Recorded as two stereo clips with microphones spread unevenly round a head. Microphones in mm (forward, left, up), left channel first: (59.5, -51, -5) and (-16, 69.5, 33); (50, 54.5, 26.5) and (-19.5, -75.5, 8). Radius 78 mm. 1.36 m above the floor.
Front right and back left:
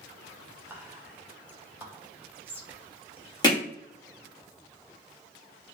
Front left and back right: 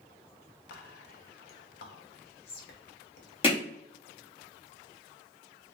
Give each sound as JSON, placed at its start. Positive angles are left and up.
{"t": 0.7, "sound": "whispering", "azimuth_deg": 40, "distance_m": 1.3}
{"t": 3.4, "sound": "hammering", "azimuth_deg": 5, "distance_m": 2.0}